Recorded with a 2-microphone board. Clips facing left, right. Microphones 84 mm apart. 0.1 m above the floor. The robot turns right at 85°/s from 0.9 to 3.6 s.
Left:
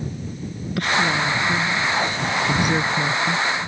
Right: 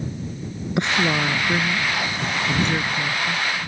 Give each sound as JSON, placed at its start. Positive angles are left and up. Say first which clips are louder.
{"t": 0.8, "sound": "a woman speaking", "louder": "left 1 dB", "side_deg": -20}